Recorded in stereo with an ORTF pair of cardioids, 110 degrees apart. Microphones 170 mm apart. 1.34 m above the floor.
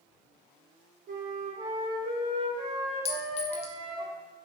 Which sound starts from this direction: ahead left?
A clink, at 3.0 s.